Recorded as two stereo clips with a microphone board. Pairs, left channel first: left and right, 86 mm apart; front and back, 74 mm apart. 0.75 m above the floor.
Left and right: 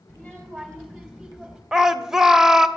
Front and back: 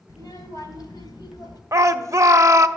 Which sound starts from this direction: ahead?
A child speaking, at 0.1 s.